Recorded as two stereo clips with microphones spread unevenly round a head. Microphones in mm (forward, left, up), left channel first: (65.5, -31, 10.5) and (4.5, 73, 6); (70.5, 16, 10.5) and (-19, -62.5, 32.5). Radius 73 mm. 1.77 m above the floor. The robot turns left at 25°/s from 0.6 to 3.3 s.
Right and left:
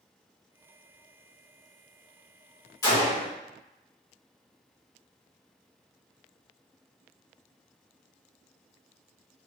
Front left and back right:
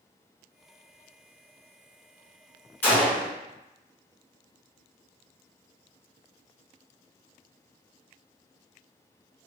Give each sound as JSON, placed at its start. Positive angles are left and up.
{"t": 2.8, "sound": "a gunshot", "azimuth_deg": -40, "distance_m": 1.7}